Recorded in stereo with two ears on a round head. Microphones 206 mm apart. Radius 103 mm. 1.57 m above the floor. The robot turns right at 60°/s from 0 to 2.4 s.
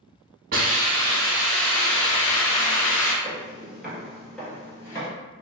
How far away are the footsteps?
About 1.7 m.